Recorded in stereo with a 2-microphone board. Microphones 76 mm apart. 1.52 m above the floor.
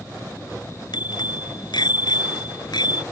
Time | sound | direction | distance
0.9 | a bicycle bell | 70° left (ahead or behind) | ?